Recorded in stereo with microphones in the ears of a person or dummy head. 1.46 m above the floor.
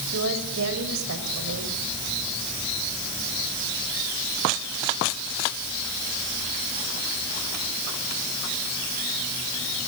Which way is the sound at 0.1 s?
70° right (ahead or behind).